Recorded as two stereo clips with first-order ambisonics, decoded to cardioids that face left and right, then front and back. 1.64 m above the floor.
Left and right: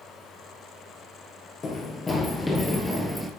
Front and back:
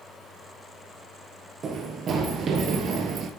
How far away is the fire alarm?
No fire alarm in this recording.